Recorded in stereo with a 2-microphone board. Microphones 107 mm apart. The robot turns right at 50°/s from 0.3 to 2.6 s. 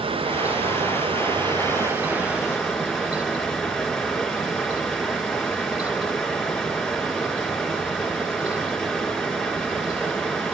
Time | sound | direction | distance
0.0 | running water | 110° right | 3 m